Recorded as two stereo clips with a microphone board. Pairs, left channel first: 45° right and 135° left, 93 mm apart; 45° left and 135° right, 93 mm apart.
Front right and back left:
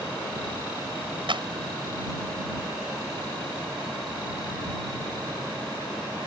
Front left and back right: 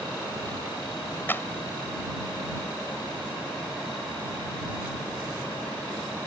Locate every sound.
1.3 s a clap: 110° left